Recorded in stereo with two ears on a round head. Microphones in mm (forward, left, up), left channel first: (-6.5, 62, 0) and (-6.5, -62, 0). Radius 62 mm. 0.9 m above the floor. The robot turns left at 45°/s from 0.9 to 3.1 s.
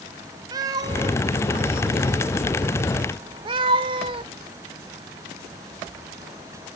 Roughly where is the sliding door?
I don't hear a sliding door.